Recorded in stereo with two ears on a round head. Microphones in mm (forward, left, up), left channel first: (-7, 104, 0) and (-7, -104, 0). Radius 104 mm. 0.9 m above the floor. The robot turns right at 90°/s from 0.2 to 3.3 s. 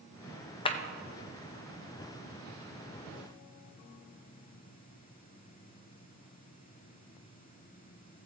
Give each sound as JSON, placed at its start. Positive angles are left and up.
{"t": 0.7, "sound": "a clap", "side_deg": 20, "distance_m": 0.7}